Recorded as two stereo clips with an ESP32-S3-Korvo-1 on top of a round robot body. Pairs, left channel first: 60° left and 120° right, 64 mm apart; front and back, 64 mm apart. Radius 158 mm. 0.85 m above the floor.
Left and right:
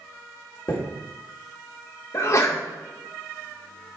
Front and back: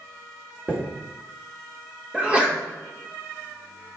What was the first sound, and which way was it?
A chime, 105° left.